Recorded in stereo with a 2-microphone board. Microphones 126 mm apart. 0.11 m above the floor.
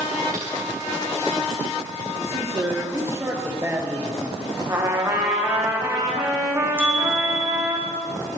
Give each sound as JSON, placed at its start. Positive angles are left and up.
{"t": 0.3, "sound": "typing on a keyboard", "side_deg": -80, "distance_m": 4.5}
{"t": 2.2, "sound": "a man speaking", "side_deg": -20, "distance_m": 2.0}
{"t": 4.7, "sound": "a trumpet", "side_deg": -25, "distance_m": 4.5}
{"t": 6.8, "sound": "a bicycle bell", "side_deg": -20, "distance_m": 3.5}